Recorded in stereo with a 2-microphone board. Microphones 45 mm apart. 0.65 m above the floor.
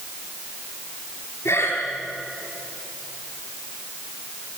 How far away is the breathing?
About 8 m.